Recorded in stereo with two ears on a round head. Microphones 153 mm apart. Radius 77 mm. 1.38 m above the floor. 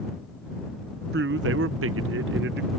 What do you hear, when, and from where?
1.1 s a man speaking: 60° right (ahead or behind); by 2.7 s 65° right (ahead or behind)